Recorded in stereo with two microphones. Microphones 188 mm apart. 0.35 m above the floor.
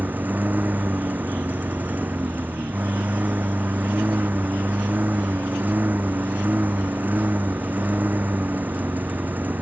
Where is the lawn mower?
10° right (ahead or behind).